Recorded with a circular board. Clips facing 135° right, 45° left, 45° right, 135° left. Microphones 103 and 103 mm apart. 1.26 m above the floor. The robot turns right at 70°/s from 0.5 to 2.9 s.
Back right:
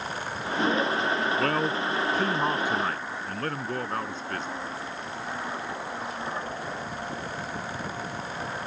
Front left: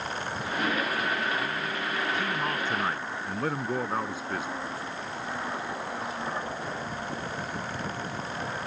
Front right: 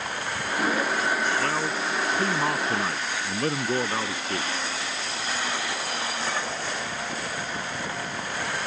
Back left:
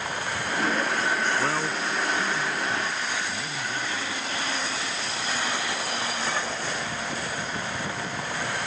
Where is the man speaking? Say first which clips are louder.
Back right 6 dB, even; 145° right; by 4.5 s 40° right.